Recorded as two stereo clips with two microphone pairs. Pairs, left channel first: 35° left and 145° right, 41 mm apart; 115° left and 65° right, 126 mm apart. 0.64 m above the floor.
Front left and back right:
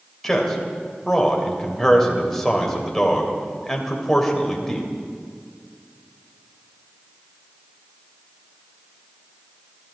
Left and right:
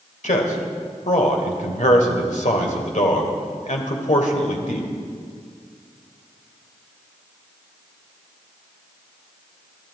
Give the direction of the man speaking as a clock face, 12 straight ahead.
8 o'clock.